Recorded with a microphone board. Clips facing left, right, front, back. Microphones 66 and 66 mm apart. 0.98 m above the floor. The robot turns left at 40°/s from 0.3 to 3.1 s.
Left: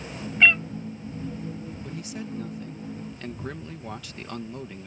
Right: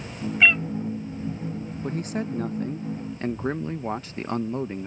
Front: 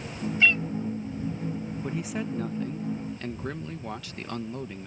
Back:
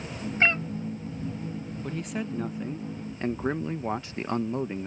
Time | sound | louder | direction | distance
0.4 | a cat meowing | even, even | 170° right | ?
1.8 | a man speaking | right 10 dB, even | 80° right | ?